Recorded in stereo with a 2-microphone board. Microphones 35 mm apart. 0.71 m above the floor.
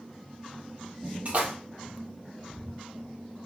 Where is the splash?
55° right (ahead or behind), 1.5 m.